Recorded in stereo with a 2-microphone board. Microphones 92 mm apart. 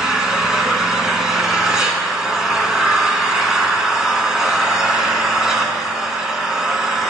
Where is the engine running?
5° right (ahead or behind), 1.5 m.